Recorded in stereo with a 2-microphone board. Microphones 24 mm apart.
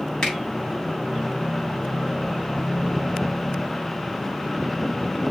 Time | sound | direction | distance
0.2 | a finger snap | 35° left (ahead or behind) | 1.7 m